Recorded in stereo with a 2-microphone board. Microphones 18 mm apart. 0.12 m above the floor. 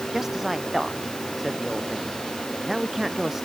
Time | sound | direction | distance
0.1 | a man speaking | 25° right (ahead or behind) | ?